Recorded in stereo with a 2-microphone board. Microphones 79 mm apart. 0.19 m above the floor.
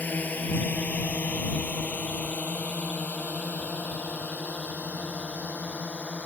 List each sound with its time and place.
0.0 s a drone: 20° left (ahead or behind); by 6.3 s 15° left (ahead or behind)